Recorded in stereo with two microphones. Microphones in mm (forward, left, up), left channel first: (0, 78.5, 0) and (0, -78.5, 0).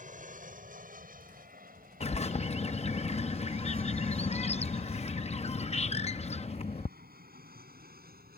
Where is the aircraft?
60° right (ahead or behind); by 8.4 s 80° right.